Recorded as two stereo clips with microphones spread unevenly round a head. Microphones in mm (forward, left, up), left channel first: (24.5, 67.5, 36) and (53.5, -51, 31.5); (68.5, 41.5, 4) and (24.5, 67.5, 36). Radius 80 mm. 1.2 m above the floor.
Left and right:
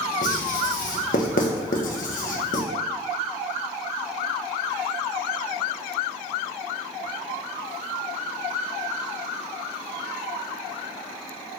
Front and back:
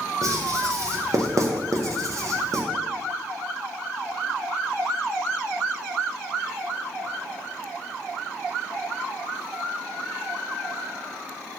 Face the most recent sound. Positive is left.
turn(degrees=120)